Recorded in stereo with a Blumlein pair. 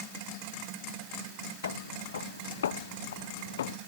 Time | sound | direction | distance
1.6 | footsteps | 65° left | ?